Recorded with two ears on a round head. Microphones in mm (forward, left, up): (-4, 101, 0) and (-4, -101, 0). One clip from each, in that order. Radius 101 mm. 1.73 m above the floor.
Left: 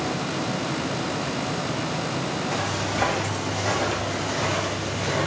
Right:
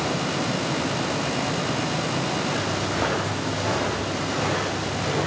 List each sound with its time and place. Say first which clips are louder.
2.5 s footsteps: even; 20° left (ahead or behind), 6.5 m; by 5.3 s 10° left (ahead or behind), 6 m